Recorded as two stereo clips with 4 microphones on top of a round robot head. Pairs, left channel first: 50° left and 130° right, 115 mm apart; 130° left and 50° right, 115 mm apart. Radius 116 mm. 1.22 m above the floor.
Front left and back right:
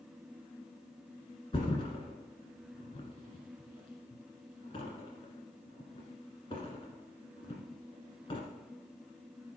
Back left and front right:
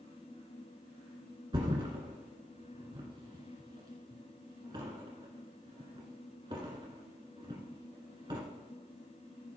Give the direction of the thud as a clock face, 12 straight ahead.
12 o'clock.